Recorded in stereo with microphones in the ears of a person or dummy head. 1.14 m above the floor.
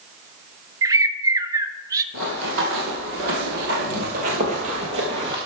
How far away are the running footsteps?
About 2 m.